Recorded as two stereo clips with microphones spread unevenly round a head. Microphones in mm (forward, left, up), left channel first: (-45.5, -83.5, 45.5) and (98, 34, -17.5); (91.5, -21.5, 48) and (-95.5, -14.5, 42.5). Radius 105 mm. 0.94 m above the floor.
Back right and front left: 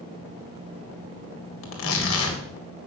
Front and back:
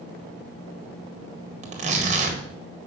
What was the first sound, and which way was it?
Tearing paper, 125° right.